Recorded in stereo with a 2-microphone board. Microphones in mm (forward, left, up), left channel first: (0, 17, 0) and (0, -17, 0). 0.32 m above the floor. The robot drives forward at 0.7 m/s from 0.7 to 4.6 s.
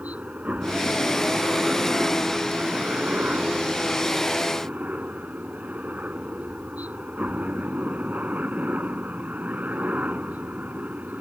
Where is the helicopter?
50° right (ahead or behind); by 11.2 s 55° right (ahead or behind).